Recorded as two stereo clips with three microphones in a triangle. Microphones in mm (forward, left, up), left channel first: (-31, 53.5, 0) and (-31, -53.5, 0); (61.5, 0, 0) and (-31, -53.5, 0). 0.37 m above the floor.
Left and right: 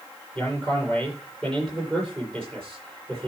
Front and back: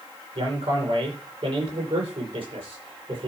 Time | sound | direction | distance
0.3 | a man speaking | 175° left | 8.5 m